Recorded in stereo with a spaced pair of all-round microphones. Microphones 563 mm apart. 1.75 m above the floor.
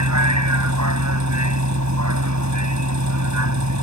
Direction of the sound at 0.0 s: 30° right (ahead or behind).